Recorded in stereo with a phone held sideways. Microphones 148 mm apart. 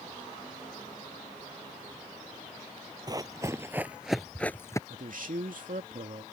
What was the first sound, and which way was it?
Running footsteps, 30° right (ahead or behind).